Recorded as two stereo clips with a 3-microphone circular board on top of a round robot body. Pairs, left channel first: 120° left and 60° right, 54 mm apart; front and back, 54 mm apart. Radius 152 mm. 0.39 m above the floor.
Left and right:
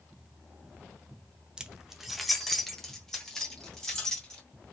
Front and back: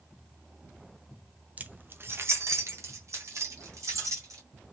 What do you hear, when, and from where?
1.6 s keys jangling: 125° right, 0.6 m; by 4.4 s 165° right, 2.0 m